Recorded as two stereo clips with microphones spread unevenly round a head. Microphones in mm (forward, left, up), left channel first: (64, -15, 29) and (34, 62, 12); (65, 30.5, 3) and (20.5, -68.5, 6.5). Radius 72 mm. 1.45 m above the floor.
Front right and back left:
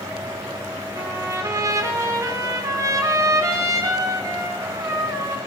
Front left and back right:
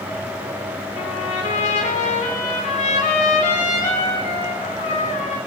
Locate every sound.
0.9 s a trumpet: 60° left, 4 m